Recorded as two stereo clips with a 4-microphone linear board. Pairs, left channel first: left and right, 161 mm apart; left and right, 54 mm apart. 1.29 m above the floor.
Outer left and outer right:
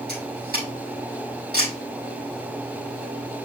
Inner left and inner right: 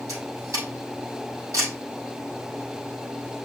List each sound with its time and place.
0.1 s a camera shutter: 90° right, 6 m